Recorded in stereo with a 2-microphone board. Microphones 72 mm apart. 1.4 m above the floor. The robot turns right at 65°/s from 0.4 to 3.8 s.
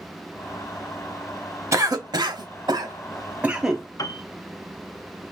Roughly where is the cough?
Right.